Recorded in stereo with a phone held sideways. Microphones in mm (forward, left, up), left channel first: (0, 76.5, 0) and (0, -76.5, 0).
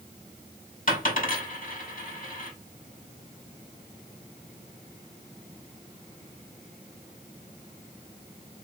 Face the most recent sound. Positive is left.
turn(degrees=60)  # may be behind; listen again after turning